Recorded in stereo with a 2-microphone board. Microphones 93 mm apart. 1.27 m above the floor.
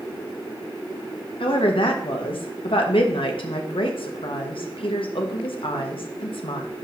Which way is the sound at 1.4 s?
65° left (ahead or behind).